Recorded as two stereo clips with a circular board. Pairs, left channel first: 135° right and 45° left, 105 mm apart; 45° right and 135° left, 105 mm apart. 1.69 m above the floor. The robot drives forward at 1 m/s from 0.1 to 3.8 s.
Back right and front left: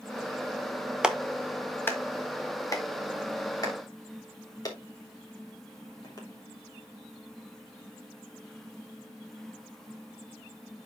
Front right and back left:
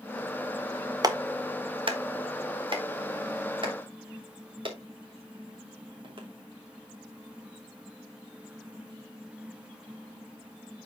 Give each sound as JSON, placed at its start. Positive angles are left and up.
{"t": 1.0, "sound": "a clap", "azimuth_deg": 120, "distance_m": 0.9}